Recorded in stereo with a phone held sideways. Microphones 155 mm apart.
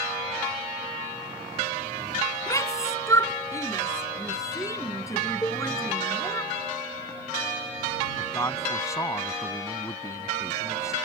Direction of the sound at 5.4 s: 20° left (ahead or behind).